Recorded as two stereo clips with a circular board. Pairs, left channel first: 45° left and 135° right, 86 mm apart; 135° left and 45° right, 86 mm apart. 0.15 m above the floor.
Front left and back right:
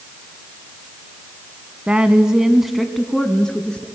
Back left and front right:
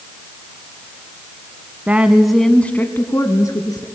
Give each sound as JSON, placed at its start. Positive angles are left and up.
{"t": 1.9, "sound": "a woman speaking", "azimuth_deg": -80, "distance_m": 1.2}